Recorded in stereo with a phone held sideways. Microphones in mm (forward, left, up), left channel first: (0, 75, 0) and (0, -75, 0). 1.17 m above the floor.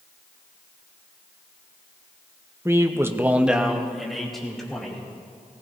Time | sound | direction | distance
2.6 | a man speaking | 15° right (ahead or behind) | 0.9 m